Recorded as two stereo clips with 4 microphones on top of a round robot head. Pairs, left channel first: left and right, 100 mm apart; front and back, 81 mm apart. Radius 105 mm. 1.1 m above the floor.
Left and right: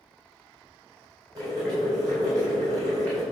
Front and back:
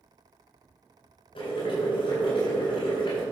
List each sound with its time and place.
1.4 s boiling: 30° right, 4 m